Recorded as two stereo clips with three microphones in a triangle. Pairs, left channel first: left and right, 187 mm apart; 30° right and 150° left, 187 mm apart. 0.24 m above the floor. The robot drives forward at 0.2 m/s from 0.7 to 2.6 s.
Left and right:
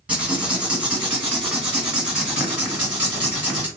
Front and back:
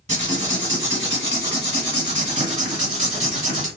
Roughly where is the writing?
Behind.